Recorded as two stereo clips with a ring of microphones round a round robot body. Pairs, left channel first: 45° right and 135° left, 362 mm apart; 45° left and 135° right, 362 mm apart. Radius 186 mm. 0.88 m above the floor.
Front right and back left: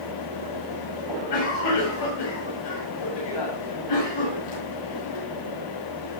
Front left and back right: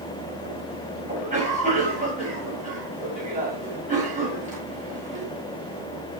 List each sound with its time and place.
1.1 s a cough: 65° right, 9.5 m